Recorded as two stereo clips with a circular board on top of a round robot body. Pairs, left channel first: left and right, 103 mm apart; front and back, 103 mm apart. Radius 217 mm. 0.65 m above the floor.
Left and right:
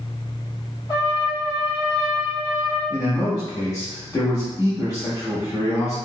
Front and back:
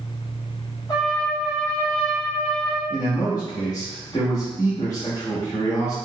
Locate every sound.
0.9 s a trumpet: 55° left, 1.1 m
2.9 s a man speaking: 45° left, 1.4 m